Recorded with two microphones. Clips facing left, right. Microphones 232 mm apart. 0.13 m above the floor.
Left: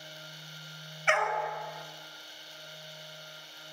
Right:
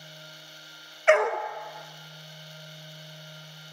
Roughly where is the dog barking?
Right.